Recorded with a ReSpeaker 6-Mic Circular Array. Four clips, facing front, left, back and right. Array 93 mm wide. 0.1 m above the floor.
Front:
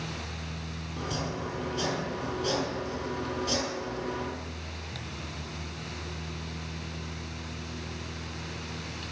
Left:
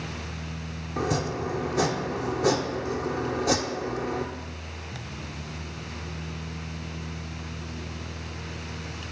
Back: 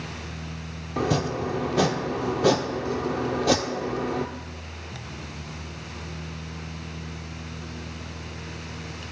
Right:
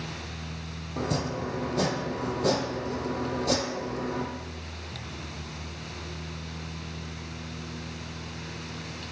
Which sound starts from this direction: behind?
Chopping, at 1.0 s.